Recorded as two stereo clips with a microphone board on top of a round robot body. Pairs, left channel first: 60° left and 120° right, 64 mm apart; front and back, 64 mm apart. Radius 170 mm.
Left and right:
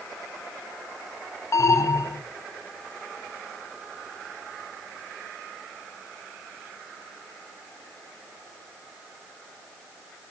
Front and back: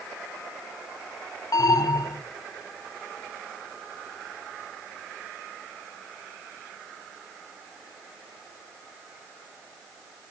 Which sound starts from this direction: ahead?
An alarm, at 1.5 s.